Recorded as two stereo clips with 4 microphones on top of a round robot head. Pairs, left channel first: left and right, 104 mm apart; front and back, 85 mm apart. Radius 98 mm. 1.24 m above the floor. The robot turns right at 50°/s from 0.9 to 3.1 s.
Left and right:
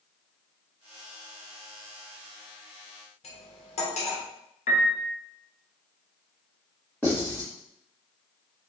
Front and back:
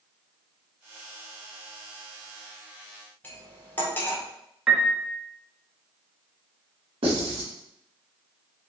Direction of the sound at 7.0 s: 170° left.